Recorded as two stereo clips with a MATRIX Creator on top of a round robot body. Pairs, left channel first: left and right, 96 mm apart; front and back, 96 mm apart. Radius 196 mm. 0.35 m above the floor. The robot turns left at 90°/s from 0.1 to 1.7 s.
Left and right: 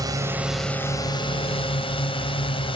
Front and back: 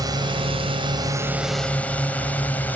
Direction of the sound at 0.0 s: 135° right.